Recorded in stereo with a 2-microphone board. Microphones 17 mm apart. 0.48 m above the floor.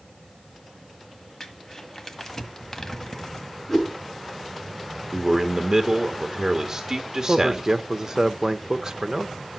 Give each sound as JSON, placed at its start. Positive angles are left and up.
{"t": 1.4, "sound": "crumpling", "side_deg": 25, "distance_m": 1.5}
{"t": 3.7, "sound": "a whoosh", "side_deg": 10, "distance_m": 6.0}
{"t": 5.1, "sound": "a man speaking", "side_deg": -35, "distance_m": 1.6}
{"t": 7.3, "sound": "a man speaking", "side_deg": -35, "distance_m": 0.9}